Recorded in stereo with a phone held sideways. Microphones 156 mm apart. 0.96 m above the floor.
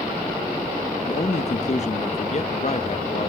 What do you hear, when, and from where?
1.0 s a man speaking: 45° left (ahead or behind), 0.8 m